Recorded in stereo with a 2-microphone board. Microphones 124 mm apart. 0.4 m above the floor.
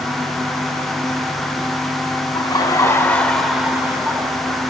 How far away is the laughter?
About 2.0 m.